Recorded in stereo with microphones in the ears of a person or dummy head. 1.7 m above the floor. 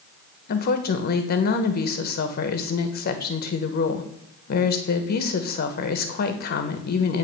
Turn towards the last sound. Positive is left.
turn(degrees=45)  # may be behind; listen again after turning